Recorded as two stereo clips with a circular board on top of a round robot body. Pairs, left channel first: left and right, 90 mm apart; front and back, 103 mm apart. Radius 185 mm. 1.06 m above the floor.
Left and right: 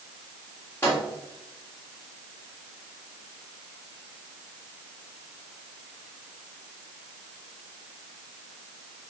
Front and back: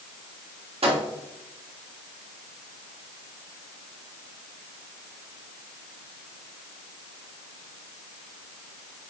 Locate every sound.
0.8 s a microwave: 155° left, 3 m